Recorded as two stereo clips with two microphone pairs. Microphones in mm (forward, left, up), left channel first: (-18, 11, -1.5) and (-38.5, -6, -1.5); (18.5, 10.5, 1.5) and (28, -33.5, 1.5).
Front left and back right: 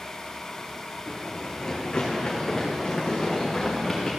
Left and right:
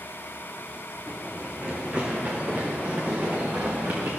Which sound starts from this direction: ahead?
Running footsteps, at 1.1 s.